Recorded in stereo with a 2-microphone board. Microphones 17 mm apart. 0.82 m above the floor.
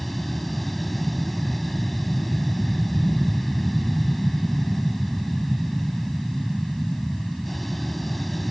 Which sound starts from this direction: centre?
An aircraft, at 0.0 s.